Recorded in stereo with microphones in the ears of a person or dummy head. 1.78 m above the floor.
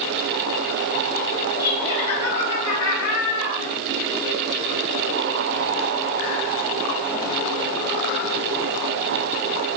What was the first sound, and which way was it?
Laughter, 25° left (ahead or behind).